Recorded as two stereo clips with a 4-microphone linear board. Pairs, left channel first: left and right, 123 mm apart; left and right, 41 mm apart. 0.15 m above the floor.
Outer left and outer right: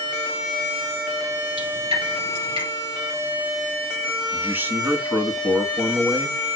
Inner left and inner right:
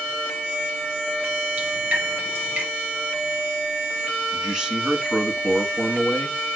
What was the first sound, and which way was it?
Dripping, 40° right (ahead or behind).